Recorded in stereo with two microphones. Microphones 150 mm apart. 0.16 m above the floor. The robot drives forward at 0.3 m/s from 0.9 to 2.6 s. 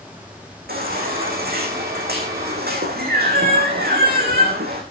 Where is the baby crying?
75° right (ahead or behind), 4 m; by 4.8 s 80° right, 4 m.